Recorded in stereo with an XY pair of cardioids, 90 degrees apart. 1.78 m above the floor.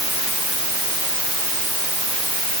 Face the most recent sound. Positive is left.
No sound to turn to.